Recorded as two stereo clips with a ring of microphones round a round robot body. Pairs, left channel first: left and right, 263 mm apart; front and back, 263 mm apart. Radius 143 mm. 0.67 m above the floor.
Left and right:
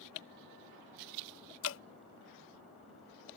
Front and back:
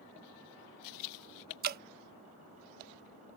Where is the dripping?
130° left.